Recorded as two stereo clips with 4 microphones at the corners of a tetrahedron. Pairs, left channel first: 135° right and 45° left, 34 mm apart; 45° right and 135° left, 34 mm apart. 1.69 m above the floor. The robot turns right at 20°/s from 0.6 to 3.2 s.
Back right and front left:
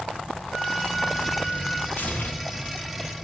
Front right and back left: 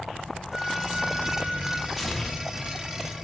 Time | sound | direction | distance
0.5 | a flute | 60° left | 1.4 m
2.0 | tearing paper | 140° right | 0.8 m